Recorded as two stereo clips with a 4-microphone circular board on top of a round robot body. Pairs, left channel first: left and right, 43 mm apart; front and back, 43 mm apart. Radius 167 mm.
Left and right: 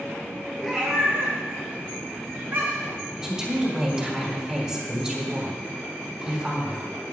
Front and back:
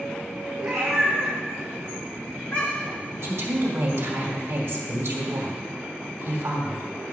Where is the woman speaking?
160° right, 2.0 m.